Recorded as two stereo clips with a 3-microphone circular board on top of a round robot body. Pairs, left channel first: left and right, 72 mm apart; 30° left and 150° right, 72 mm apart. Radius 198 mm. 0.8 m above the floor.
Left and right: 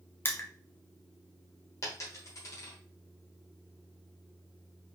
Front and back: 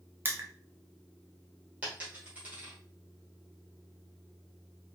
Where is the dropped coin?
135° left, 1.3 m.